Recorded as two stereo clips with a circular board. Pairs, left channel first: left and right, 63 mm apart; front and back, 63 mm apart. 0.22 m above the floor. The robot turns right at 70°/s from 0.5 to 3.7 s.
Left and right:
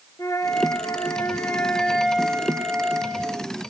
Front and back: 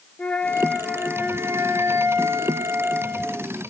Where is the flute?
75° left, 1.6 m; by 3.5 s 75° right, 1.6 m.